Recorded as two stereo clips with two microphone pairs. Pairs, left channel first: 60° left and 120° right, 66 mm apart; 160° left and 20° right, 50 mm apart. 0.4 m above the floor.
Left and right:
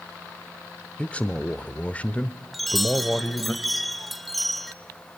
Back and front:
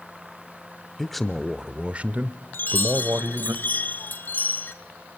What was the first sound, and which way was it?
A man speaking, 90° left.